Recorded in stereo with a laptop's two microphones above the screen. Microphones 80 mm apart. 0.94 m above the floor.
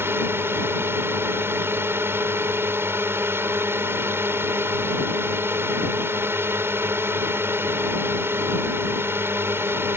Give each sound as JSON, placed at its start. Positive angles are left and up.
{"t": 0.0, "sound": "a drone", "side_deg": -30}